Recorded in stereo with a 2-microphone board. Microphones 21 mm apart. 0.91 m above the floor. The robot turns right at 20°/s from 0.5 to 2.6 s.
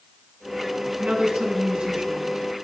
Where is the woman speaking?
75° right (ahead or behind), 8.5 m; by 2.4 s 45° right (ahead or behind), 8.5 m.